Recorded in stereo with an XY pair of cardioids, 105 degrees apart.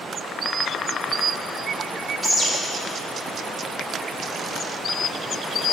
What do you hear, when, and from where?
2.2 s a bird: 30° right, 3 m